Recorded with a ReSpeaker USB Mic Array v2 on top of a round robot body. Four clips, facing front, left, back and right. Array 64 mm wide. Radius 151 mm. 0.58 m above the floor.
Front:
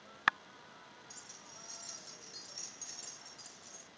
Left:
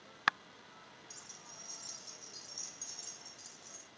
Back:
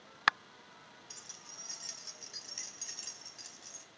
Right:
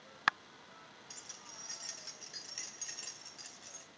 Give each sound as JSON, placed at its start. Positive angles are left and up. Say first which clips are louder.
{"t": 1.1, "sound": "keys jangling", "louder": "right 1 dB, even", "azimuth_deg": -120, "distance_m": 4.5}